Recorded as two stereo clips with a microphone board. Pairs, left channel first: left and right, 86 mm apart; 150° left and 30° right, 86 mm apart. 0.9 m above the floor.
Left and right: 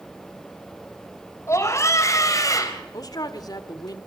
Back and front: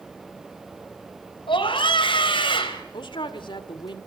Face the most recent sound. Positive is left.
turn(degrees=130)